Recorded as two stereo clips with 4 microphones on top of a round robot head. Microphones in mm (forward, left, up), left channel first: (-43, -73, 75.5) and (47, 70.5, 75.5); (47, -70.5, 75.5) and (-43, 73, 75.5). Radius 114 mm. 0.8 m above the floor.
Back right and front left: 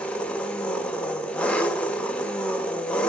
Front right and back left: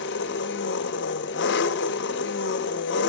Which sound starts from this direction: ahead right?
An engine running, at 0.0 s.